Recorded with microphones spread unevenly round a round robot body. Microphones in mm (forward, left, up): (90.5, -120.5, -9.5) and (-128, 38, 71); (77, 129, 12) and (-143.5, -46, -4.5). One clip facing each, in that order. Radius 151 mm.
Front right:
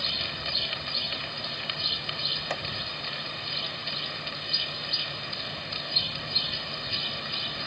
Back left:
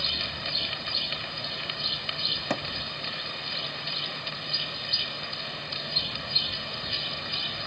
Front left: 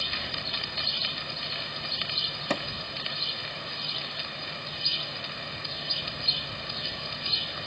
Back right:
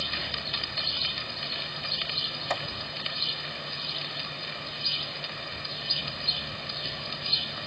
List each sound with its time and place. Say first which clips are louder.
2.5 s hammering: back left 6 dB, front left 4 dB; 95° left